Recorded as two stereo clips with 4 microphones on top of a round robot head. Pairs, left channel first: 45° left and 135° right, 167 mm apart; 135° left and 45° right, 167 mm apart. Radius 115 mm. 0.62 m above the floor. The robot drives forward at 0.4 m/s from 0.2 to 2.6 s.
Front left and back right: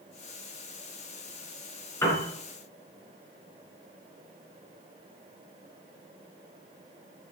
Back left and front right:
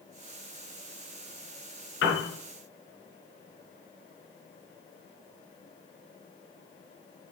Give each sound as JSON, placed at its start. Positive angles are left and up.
{"t": 2.0, "sound": "a piano", "azimuth_deg": 125, "distance_m": 3.5}